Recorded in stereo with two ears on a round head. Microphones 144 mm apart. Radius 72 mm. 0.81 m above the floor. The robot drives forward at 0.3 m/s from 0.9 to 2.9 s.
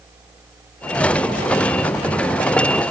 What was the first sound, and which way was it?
Only background noise.